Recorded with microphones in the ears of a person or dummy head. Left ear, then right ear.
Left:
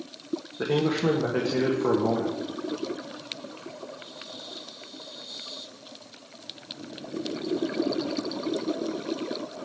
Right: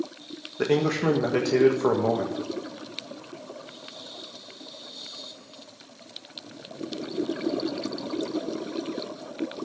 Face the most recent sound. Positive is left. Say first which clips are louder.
# right 2 dB
turn(degrees=-80)